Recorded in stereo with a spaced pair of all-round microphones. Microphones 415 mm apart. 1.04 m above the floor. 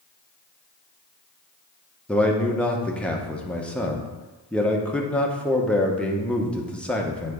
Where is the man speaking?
5° left (ahead or behind), 0.8 m.